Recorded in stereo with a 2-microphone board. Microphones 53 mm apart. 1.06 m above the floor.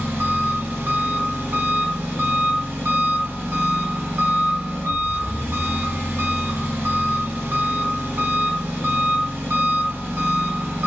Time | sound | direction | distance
0.0 | an engine running | 45° right (ahead or behind) | 0.8 m